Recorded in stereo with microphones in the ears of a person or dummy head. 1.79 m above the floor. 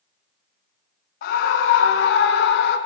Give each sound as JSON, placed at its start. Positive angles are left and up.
{"t": 1.2, "sound": "a scream", "side_deg": 65, "distance_m": 1.6}